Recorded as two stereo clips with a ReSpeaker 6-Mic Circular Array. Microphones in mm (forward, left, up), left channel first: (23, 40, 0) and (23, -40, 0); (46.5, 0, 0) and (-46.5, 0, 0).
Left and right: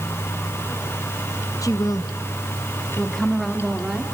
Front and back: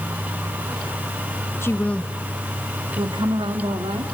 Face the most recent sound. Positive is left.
turn(degrees=-175)